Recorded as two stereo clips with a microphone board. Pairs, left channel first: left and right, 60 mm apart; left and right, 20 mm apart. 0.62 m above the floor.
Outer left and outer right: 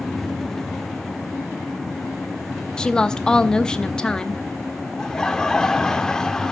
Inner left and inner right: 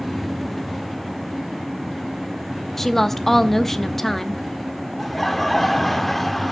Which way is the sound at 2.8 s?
15° left (ahead or behind).